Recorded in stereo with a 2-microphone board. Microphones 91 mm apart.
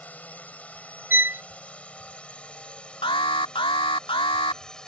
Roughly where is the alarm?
Left.